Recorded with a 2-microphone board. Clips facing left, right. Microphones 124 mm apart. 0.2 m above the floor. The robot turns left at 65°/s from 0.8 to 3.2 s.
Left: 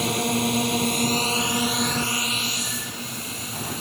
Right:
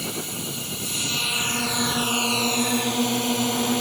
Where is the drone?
65° left; by 3.8 s 90° right.